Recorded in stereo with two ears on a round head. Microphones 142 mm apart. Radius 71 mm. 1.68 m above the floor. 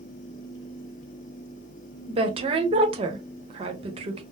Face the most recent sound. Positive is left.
turn(degrees=-35)  # may be behind; listen again after turning